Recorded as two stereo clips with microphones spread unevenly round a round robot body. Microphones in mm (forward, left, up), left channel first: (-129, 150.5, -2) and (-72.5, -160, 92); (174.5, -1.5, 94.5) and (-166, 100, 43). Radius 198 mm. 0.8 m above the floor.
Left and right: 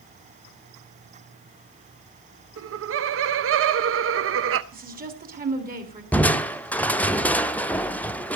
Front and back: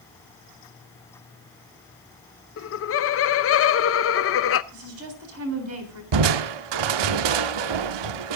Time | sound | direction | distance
2.6 | laughter | 40° right | 0.8 m
4.7 | a woman speaking | 145° right | 3.5 m
6.1 | crushing | 170° right | 0.7 m